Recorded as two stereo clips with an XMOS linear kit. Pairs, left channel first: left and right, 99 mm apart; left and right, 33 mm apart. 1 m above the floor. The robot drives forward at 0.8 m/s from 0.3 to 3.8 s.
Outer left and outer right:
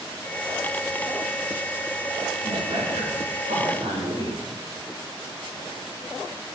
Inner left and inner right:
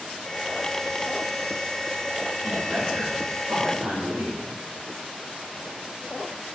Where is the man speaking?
80° right, 2.5 m; by 4.5 s 65° right (ahead or behind), 2.5 m.